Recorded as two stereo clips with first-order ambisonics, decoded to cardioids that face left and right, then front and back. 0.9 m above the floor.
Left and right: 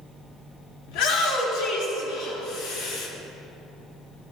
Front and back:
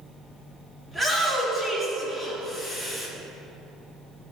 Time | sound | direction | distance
0.9 | a shout | 100° left | 2.5 m